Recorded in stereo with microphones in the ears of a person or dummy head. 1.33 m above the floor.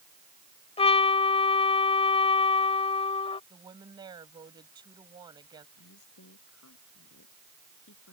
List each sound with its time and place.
0.8 s a trumpet: 25° left (ahead or behind)
3.5 s a woman speaking: 20° right (ahead or behind)
5.8 s a woman speaking: 80° left